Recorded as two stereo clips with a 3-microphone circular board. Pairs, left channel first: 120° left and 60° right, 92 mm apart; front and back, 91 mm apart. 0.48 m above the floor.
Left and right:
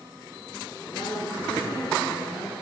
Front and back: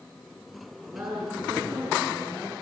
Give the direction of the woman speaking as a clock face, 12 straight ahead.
8 o'clock.